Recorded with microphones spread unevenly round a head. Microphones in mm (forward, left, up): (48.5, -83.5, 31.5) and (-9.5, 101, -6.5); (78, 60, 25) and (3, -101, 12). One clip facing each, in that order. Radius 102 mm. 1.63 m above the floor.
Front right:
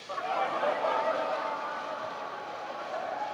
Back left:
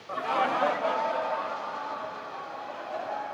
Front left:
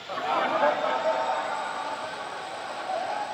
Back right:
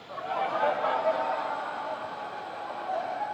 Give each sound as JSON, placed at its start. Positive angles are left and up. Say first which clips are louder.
{"t": 0.1, "sound": "laughter", "louder": "back left 3 dB, front left 4 dB", "azimuth_deg": 55, "distance_m": 0.7}